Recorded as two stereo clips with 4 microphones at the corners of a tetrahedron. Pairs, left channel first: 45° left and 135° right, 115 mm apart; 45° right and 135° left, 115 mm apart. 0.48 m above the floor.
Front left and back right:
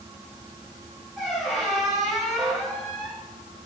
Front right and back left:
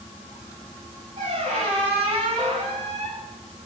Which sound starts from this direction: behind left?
A squeak, at 1.2 s.